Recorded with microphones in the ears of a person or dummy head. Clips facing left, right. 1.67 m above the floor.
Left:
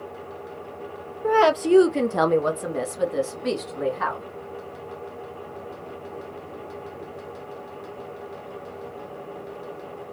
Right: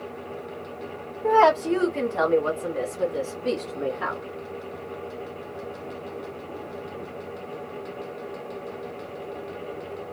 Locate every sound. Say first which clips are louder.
1.2 s a woman speaking: even; 10° left (ahead or behind), 0.6 m; by 4.2 s 75° left (ahead or behind), 2 m